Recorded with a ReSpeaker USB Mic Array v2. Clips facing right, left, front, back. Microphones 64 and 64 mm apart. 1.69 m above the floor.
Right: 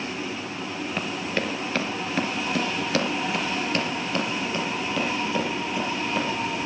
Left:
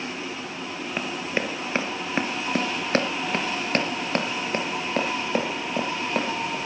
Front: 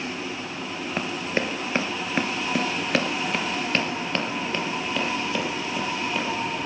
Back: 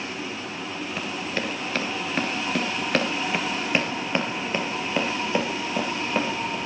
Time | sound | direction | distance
1.0 | running footsteps | 25° left | 2.0 m